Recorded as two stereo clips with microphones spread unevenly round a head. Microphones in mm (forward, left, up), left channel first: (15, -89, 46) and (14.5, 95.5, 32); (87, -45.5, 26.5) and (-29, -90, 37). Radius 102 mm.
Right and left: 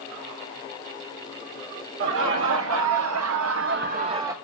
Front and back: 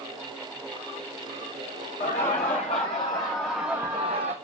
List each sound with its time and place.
2.0 s laughter: 75° left, 1.3 m; by 4.3 s 170° left, 0.5 m